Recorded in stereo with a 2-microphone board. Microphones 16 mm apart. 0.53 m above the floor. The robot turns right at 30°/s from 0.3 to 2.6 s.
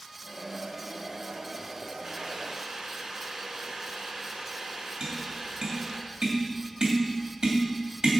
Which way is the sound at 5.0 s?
55° right (ahead or behind).